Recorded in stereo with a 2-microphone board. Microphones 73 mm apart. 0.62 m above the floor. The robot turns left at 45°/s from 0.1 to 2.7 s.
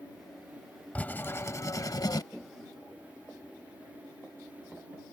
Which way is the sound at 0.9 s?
160° left.